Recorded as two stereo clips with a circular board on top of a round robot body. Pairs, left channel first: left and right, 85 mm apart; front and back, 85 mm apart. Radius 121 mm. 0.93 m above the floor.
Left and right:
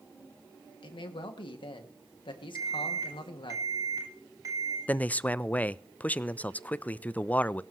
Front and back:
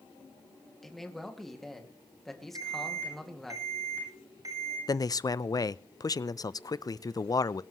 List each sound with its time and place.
0.8 s a man speaking: 85° left, 2 m
2.5 s an alarm: 135° right, 9.5 m
4.9 s a man speaking: 25° left, 0.6 m